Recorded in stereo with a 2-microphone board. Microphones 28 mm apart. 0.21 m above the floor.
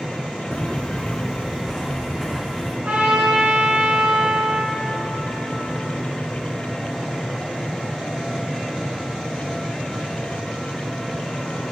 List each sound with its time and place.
0.5 s footsteps: 30° left (ahead or behind), 1.0 m; by 2.7 s 5° right (ahead or behind), 3 m
2.8 s a trumpet: 55° right (ahead or behind), 4.5 m